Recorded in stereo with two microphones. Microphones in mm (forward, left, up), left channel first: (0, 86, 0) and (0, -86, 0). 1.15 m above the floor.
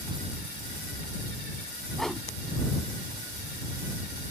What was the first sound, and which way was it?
A whoosh, 5° left (ahead or behind).